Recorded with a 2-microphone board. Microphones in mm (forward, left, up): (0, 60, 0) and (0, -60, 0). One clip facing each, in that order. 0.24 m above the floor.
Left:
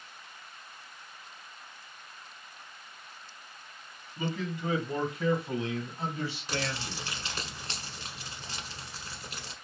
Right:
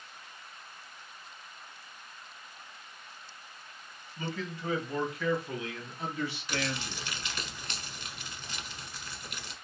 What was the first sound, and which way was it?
A man speaking, 10° left (ahead or behind).